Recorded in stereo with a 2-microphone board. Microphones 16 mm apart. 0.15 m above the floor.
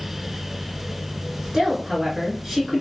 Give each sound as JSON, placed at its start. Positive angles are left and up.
{"t": 1.5, "sound": "a woman speaking", "side_deg": -25, "distance_m": 1.8}